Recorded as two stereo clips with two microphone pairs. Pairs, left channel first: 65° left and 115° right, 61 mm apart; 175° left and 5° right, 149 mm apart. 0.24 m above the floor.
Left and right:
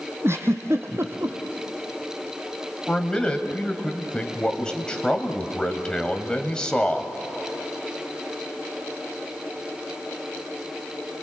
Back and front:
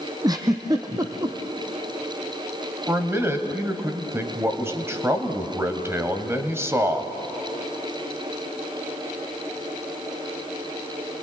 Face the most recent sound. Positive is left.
turn(degrees=25)